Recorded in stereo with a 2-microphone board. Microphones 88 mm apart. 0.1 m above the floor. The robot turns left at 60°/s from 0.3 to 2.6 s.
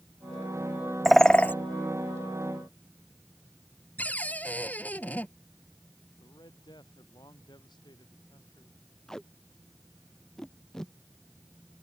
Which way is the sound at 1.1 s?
Centre (ahead or behind).